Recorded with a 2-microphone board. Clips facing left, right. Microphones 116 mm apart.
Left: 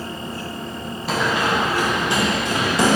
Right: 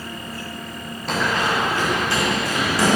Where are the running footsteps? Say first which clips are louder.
Left 1 dB; 5° left (ahead or behind), 2 m; by 3.0 s 25° left (ahead or behind), 3.5 m.